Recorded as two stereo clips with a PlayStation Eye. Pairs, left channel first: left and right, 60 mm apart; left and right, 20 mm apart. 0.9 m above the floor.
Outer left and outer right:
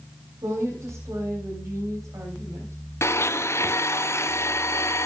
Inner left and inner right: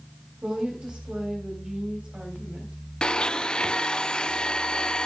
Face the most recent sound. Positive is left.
turn(degrees=45)  # may be behind; listen again after turning